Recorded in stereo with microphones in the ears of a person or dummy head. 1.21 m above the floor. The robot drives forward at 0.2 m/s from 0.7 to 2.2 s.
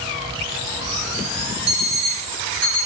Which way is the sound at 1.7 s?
60° right (ahead or behind).